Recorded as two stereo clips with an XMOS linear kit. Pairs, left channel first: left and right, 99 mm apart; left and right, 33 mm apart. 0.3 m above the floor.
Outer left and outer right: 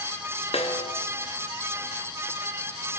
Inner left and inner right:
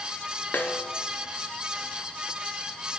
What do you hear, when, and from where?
0.5 s a snare drum: 85° left, 1.3 m